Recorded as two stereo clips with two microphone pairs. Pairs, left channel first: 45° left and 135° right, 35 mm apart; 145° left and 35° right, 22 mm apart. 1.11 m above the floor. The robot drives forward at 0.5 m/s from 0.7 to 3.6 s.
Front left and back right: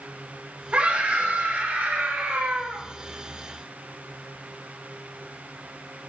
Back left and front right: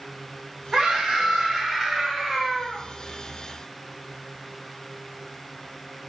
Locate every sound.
0.7 s a scream: 90° right, 1.9 m; by 2.8 s 120° right, 2 m